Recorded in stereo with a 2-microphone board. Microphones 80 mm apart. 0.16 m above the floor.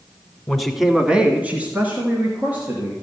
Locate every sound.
0.5 s a man speaking: 5° left (ahead or behind), 1.3 m; by 2.9 s 20° right (ahead or behind), 3 m